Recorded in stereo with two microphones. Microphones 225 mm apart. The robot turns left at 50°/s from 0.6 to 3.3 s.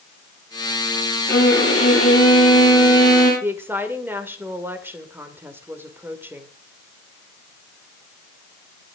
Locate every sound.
1.3 s a violin: 135° left, 8 m; by 3.3 s 35° left, 8 m
3.4 s a woman speaking: 10° right (ahead or behind), 2 m